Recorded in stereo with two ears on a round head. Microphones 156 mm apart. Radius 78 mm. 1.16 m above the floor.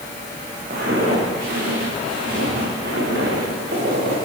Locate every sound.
0.7 s footsteps: 55° right (ahead or behind), 8 m; by 4.2 s 70° right (ahead or behind), 7.5 m